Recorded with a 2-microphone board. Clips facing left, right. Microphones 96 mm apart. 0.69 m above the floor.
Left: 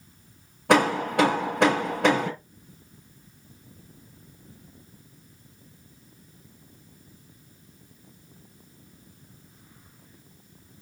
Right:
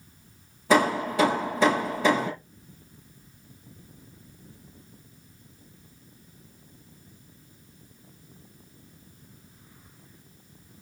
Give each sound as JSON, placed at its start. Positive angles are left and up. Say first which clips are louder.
{"t": 0.7, "sound": "hammering", "louder": "left 1 dB", "side_deg": 65, "distance_m": 5.5}